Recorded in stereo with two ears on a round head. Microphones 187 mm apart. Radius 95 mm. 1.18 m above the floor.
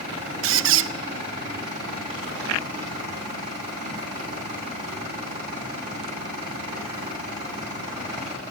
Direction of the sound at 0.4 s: 60° right (ahead or behind).